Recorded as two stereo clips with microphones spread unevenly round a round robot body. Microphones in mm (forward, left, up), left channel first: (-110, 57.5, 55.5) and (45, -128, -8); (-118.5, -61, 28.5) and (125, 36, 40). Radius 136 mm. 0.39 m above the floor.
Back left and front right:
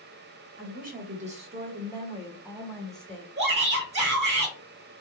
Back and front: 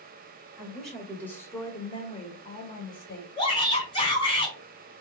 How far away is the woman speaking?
About 2 m.